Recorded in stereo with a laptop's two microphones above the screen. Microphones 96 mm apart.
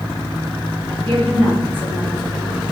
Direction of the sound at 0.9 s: 70° right (ahead or behind).